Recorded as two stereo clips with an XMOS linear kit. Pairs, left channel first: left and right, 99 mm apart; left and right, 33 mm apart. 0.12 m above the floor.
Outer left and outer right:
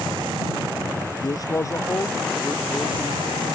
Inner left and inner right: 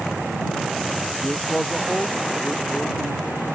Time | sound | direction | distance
1.2 | a man speaking | 45° left (ahead or behind) | ?